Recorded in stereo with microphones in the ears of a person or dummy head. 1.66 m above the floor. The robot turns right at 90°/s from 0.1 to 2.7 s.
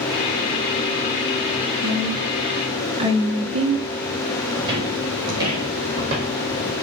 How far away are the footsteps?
About 6 m.